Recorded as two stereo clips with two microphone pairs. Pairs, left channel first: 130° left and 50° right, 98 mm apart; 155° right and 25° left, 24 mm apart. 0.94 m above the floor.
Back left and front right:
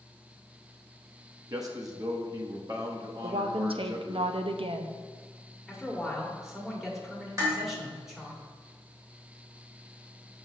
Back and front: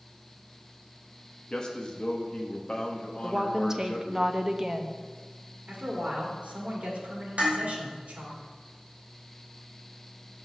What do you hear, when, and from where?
1.5 s a man speaking: 105° right, 1.1 m
3.2 s a woman speaking: 45° right, 0.6 m
5.7 s a man speaking: 35° left, 1.8 m
7.4 s dishes clattering: 5° left, 2.5 m